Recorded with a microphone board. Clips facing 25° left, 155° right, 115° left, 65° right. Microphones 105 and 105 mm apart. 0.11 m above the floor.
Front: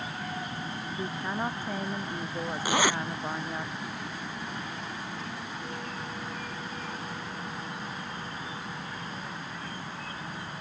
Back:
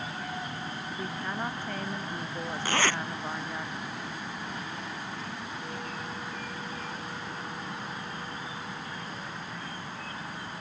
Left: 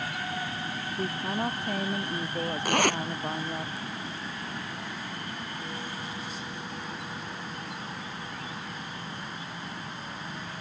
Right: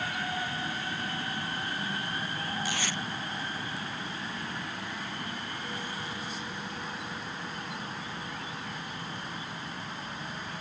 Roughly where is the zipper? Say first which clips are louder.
Front 2 dB, left 9 dB; left.